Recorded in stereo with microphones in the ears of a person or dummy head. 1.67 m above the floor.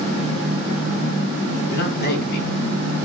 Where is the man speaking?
55° left (ahead or behind), 0.9 m.